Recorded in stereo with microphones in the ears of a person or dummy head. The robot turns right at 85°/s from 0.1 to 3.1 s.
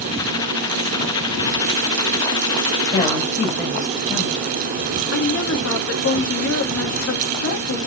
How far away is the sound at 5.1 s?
About 2.5 m.